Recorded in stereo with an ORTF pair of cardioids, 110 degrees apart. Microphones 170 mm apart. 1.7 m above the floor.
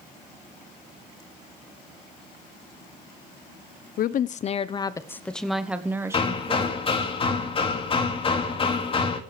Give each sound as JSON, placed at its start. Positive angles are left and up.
{"t": 4.0, "sound": "a woman speaking", "azimuth_deg": 60, "distance_m": 1.0}
{"t": 6.1, "sound": "hammering", "azimuth_deg": 35, "distance_m": 2.5}